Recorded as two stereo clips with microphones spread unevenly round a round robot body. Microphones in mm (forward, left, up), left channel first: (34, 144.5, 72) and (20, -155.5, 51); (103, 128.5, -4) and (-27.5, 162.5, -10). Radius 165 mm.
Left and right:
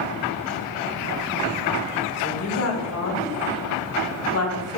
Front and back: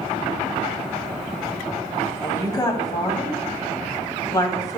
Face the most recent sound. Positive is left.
turn(degrees=50)